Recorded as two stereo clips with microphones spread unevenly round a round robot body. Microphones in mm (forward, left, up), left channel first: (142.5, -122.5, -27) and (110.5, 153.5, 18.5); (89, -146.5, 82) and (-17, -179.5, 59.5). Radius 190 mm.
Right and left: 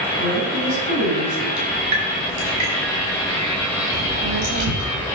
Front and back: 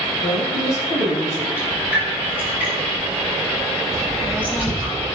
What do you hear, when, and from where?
0.2 s a woman speaking: 75° left, 4.5 m
1.6 s dripping: 80° left, 4 m
3.9 s a child speaking: 120° left, 0.8 m